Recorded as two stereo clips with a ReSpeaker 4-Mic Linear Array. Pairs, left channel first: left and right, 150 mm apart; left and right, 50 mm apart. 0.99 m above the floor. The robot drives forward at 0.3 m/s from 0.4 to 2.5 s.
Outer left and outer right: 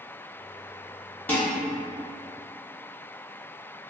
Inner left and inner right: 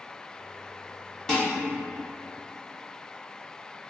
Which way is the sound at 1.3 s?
10° left (ahead or behind).